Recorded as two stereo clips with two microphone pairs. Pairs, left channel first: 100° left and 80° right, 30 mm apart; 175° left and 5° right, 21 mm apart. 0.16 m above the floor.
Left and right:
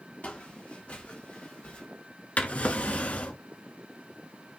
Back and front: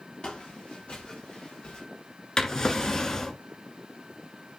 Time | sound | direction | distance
0.2 | footsteps | 140° left | 2 m
2.4 | a drawer | 120° left | 0.8 m